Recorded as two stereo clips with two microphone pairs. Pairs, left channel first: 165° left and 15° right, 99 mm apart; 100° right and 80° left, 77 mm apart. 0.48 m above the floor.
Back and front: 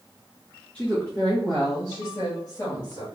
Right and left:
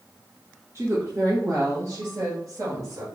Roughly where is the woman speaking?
Left.